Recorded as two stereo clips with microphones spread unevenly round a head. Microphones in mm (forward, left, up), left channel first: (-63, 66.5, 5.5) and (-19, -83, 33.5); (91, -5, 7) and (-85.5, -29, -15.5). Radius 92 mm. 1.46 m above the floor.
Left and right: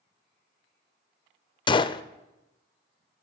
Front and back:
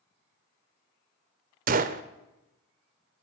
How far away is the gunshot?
About 0.5 m.